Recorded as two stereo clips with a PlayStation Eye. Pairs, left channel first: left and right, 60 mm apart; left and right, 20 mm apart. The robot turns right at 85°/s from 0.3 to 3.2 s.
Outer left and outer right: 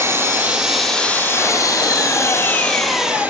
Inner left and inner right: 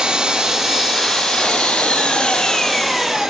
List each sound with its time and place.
0.0 s an engine running: 45° right, 1.4 m; by 3.3 s 155° right, 1.4 m